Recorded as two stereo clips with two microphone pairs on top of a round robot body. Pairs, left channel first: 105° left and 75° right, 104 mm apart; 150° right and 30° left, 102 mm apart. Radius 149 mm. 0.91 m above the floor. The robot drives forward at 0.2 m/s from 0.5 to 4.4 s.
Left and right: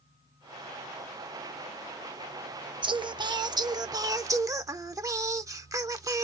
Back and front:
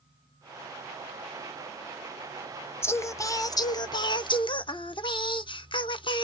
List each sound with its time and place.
2.8 s singing: 85° right, 0.7 m; by 6.2 s 120° right, 0.7 m